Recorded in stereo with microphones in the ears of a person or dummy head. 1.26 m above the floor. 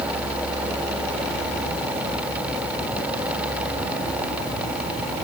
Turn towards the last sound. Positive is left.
No sound to turn to.